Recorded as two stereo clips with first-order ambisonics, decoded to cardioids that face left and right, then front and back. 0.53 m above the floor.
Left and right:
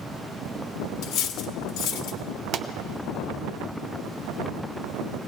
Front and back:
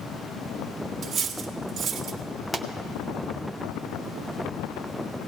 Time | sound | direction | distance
1.0 | cutlery clinking | 115° left | 0.8 m
2.5 | a pop | 75° right | 0.6 m